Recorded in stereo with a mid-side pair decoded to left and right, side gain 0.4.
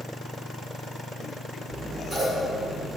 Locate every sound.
1.7 s scissors: 60° right, 1.2 m